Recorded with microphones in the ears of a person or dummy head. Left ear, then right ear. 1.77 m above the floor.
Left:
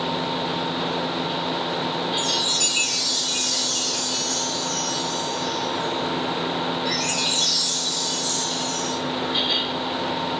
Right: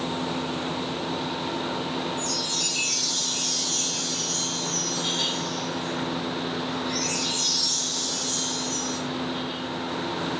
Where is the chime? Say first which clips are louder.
Left 6 dB; 20° left (ahead or behind), 1.5 m.